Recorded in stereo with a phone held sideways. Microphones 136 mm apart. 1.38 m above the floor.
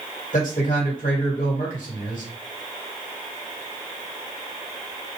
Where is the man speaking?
65° left (ahead or behind), 1.5 m.